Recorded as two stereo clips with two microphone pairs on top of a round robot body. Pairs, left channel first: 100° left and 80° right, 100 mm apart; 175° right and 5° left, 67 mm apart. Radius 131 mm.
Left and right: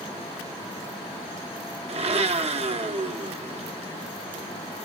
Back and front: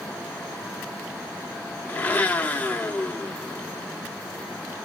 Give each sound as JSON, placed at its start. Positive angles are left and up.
{"t": 1.9, "sound": "a blender", "azimuth_deg": -105, "distance_m": 0.9}